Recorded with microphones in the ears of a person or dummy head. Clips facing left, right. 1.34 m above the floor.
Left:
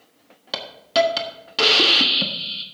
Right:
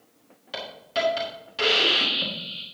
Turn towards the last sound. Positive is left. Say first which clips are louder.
# left 9 dB
turn(degrees=75)  # may be behind; listen again after turning